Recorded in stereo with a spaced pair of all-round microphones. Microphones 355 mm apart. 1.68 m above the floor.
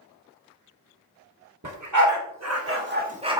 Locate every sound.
1.6 s a dog barking: 55° right (ahead or behind), 2 m; by 3.4 s 10° right (ahead or behind), 1.5 m